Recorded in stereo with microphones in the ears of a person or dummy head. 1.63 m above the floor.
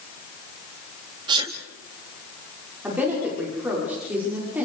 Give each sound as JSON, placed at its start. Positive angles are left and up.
{"t": 1.3, "sound": "a sneeze", "side_deg": -30, "distance_m": 2.5}
{"t": 2.8, "sound": "a woman speaking", "side_deg": -5, "distance_m": 5.5}